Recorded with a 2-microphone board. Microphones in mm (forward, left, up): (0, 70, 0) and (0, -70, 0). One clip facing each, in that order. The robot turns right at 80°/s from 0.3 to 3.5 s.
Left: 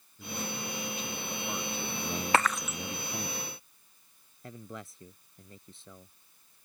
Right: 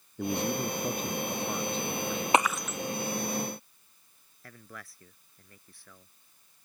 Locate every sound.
0.2 s a man speaking: 110° right; by 3.3 s 135° left
2.3 s breaking glass: 20° right (ahead or behind); by 2.8 s 15° left (ahead or behind)
4.4 s a man speaking: 20° left (ahead or behind)